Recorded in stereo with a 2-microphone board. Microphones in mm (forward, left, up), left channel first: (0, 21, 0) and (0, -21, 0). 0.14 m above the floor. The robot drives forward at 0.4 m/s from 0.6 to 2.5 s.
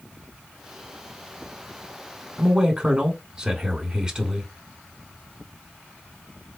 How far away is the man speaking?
About 1.0 m.